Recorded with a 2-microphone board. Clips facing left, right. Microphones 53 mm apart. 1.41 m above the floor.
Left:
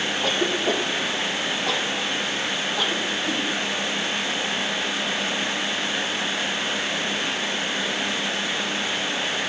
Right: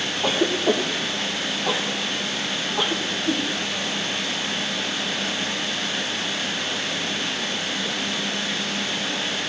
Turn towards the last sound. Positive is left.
turn(degrees=-10)  # may be behind; listen again after turning